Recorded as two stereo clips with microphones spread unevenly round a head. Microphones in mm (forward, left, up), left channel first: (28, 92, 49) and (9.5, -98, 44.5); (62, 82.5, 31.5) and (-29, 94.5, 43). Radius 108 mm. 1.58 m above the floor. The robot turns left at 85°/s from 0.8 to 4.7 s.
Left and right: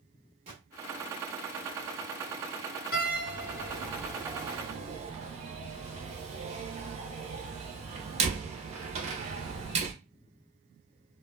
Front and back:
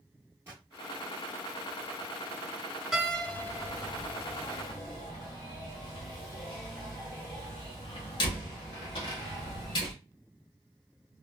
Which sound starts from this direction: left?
A door slam, at 2.9 s.